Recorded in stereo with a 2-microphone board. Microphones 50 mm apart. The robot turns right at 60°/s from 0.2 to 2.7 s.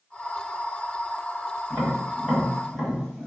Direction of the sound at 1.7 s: 60° right (ahead or behind).